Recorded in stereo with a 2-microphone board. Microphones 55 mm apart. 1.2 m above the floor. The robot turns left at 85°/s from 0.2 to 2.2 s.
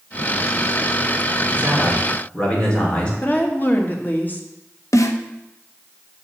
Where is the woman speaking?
35° left (ahead or behind), 1.7 m.